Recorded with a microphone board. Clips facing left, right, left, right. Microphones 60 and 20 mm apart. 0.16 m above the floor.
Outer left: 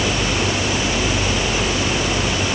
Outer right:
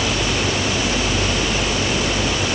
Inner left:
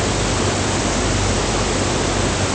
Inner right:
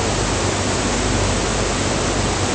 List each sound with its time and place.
Only background noise.